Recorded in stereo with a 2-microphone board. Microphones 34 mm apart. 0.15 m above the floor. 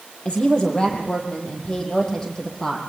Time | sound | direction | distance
0.2 | a woman speaking | 30° left (ahead or behind) | 5.5 m